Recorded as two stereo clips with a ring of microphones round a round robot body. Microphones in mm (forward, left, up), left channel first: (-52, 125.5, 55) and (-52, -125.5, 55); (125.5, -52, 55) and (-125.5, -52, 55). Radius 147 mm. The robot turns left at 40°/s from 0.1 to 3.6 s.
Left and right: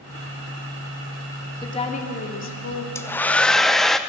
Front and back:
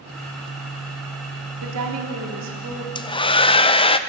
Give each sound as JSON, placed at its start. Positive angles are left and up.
{"t": 1.6, "sound": "a woman speaking", "azimuth_deg": 165, "distance_m": 2.5}
{"t": 3.0, "sound": "a hair dryer", "azimuth_deg": 30, "distance_m": 0.8}